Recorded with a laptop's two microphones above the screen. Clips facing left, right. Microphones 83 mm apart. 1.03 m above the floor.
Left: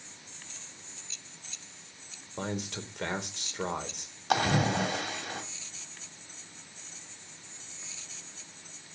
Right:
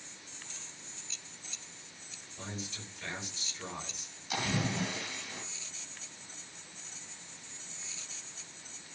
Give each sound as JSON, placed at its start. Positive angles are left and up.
{"t": 2.4, "sound": "a man speaking", "side_deg": 70, "distance_m": 3.5}
{"t": 4.3, "sound": "a splash", "side_deg": 80, "distance_m": 3.0}